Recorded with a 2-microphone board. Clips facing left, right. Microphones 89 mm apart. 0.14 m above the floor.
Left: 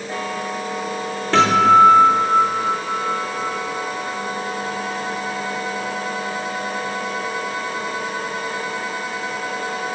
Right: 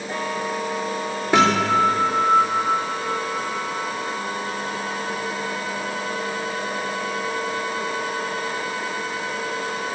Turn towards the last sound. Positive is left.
turn(degrees=-10)  # may be behind; listen again after turning